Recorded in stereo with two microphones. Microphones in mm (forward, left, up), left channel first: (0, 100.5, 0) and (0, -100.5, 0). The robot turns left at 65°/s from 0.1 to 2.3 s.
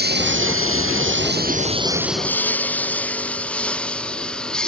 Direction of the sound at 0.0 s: 50° right (ahead or behind).